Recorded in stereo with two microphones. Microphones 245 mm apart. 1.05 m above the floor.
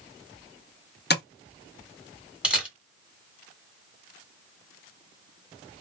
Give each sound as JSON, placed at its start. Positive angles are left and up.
{"t": 1.1, "sound": "tapping", "side_deg": 45, "distance_m": 0.5}
{"t": 2.4, "sound": "a camera shutter", "side_deg": -5, "distance_m": 1.1}